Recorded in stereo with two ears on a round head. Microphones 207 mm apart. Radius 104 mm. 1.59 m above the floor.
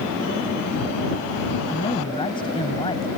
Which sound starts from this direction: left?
A man speaking, at 1.7 s.